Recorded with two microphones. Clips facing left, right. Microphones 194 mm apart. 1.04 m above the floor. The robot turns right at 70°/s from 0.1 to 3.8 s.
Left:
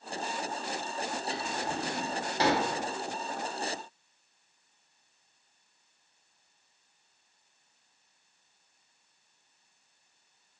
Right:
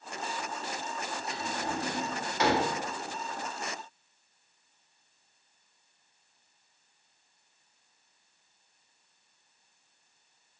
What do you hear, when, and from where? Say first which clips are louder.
1.3 s a drawer: even; 45° right (ahead or behind), 0.9 m; by 2.6 s 50° left (ahead or behind), 0.9 m